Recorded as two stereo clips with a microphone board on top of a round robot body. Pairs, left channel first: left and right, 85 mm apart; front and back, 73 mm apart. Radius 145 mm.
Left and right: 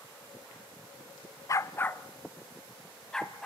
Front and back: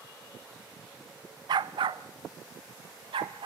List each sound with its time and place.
1.5 s a dog barking: 145° left, 0.6 m; by 3.5 s 175° left, 2.5 m